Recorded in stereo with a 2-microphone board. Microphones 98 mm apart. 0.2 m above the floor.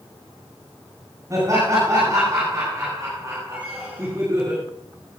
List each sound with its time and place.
1.3 s laughter: 30° right (ahead or behind), 10 m
3.5 s a squeak: 15° right (ahead or behind), 8 m